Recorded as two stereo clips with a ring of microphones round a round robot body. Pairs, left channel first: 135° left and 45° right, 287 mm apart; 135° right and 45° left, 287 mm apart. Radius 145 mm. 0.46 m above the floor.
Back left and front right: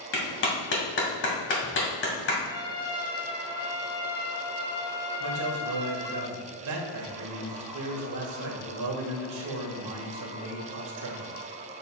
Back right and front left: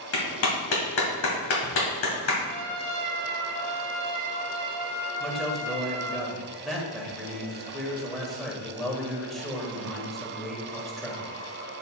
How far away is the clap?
About 2 m.